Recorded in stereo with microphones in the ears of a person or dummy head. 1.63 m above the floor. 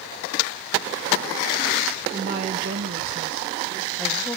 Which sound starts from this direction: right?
A woman speaking, at 2.1 s.